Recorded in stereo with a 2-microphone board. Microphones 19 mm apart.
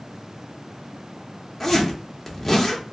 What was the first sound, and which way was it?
A zipper, 15° left (ahead or behind).